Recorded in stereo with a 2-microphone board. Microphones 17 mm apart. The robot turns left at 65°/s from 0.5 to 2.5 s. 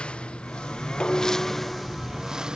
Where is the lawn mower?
75° left; by 2.6 s 55° right.